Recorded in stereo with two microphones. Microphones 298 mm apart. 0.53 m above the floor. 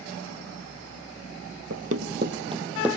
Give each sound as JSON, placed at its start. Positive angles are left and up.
{"t": 1.7, "sound": "running footsteps", "side_deg": -60, "distance_m": 0.9}